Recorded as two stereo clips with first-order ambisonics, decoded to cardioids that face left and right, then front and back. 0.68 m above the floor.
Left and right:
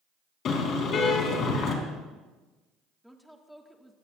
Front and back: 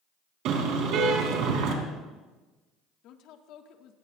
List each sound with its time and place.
0.5 s a car horn: 145° left, 3 m
3.0 s a woman speaking: straight ahead, 1.5 m